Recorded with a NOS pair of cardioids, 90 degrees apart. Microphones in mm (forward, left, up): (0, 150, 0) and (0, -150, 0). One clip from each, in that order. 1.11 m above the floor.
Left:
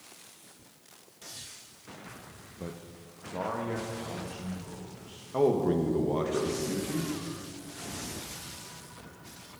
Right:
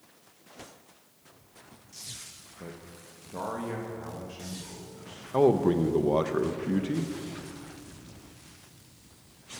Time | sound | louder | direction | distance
2.6 | a man speaking | left 2 dB | 20° left | 0.7 m
5.3 | a man speaking | right 3 dB | 30° right | 0.8 m